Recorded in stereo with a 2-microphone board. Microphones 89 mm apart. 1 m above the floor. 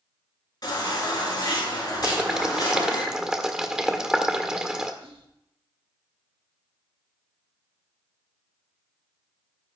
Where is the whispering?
75° right (ahead or behind), 2 m.